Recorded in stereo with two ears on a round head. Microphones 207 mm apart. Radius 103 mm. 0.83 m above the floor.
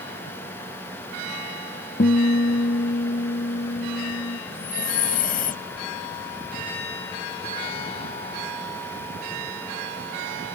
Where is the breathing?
40° left (ahead or behind).